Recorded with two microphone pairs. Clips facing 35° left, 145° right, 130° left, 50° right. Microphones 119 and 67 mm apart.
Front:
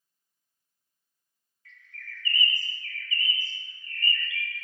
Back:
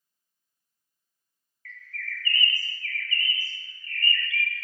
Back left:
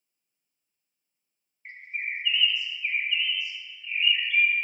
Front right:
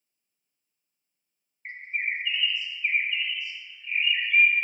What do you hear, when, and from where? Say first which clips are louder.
1.6 s a bird: back 8 dB, front right 3 dB; 20° right, 0.8 m